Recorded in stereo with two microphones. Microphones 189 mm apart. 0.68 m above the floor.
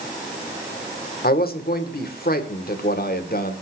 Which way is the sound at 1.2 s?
55° left (ahead or behind).